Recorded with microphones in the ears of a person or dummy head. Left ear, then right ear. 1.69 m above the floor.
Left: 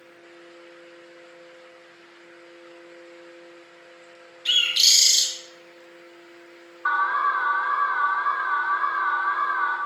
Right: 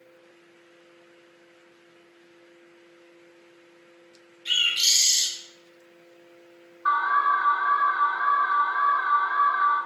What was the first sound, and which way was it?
A bird, 30° left (ahead or behind).